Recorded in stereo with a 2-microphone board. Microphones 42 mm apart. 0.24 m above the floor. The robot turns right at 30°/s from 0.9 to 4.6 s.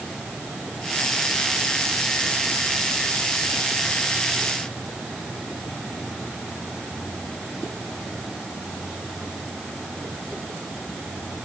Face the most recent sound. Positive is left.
No sound to turn to.